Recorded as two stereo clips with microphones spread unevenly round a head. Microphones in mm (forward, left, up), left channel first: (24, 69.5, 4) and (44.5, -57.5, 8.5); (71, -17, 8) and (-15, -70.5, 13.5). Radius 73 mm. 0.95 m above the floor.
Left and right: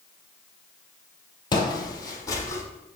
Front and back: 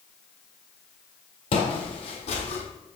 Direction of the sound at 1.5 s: 50° left.